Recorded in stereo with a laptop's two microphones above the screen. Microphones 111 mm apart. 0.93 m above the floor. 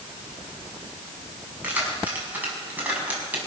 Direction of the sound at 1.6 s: 15° right (ahead or behind).